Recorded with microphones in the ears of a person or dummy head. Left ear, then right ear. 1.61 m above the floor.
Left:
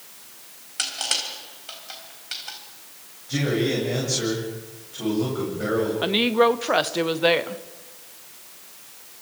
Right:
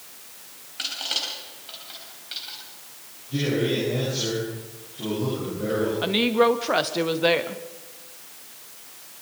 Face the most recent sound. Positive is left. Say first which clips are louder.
# left 1 dB
turn(degrees=10)  # may be behind; listen again after turning